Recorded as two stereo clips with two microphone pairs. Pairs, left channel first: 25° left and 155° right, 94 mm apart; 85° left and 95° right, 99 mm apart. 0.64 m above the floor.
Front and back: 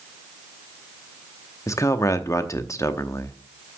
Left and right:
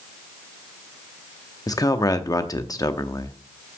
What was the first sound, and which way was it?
A man speaking, 60° left.